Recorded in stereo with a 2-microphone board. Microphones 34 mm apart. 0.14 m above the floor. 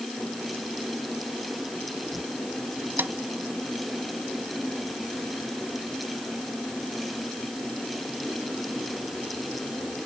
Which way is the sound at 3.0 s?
70° right (ahead or behind).